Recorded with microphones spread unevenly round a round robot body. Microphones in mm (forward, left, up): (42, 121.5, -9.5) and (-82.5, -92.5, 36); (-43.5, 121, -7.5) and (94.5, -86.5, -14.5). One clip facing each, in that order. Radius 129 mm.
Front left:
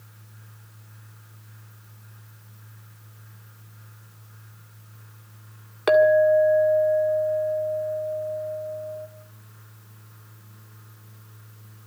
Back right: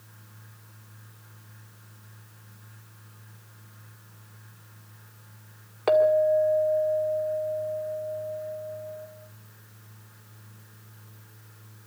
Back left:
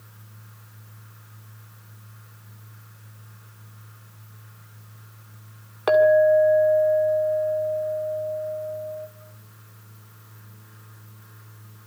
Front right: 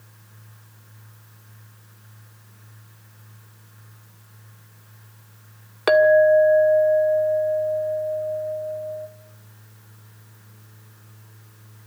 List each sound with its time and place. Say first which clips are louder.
5.9 s a clink: front left 4 dB, front right 2 dB; 5° right, 1.7 m